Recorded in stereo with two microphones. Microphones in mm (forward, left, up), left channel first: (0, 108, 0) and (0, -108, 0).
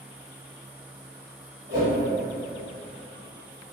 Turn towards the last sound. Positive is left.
turn(degrees=-50)  # may be behind; listen again after turning